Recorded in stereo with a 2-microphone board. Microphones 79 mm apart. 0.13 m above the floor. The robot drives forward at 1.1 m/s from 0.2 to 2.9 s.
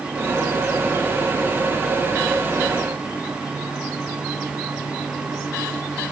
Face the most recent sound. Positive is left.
No sound to turn to.